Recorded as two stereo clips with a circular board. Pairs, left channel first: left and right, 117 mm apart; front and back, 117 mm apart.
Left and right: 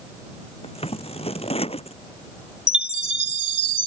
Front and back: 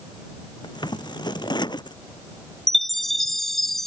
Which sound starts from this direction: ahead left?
Scissors, at 0.6 s.